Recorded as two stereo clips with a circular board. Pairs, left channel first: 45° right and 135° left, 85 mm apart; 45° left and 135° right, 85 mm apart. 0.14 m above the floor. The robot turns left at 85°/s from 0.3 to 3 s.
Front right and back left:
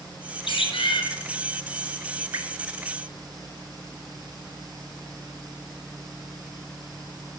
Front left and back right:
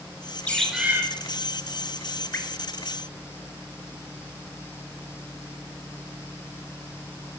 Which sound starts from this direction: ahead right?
A bird, at 0.5 s.